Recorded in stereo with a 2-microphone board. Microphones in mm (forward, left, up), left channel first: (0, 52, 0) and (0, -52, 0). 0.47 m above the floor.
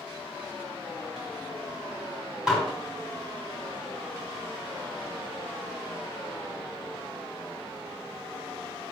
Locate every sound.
2.5 s dishes clattering: 5° right (ahead or behind), 2.5 m